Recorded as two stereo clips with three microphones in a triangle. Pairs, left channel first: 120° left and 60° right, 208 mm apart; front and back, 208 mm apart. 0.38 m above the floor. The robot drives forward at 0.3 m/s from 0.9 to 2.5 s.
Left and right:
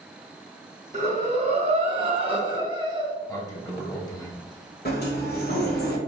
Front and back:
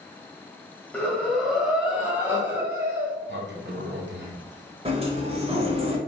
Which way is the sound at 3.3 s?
170° right.